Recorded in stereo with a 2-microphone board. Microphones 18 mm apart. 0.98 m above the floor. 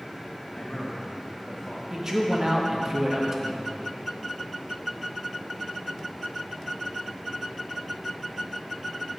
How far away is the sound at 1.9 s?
About 0.9 m.